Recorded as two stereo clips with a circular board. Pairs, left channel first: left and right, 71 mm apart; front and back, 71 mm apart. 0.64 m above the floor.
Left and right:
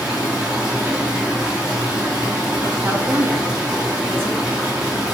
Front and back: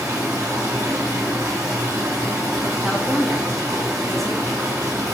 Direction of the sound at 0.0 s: 160° right.